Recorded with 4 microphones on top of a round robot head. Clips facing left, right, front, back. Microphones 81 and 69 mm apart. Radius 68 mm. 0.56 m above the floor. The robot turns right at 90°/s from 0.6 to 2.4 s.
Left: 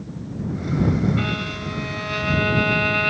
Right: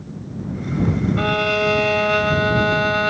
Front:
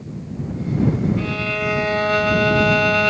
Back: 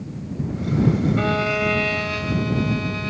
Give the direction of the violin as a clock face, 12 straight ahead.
4 o'clock.